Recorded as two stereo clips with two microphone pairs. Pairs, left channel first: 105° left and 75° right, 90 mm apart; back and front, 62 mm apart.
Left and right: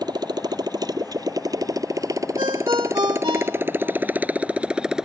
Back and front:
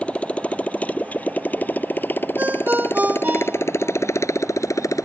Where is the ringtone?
60° right.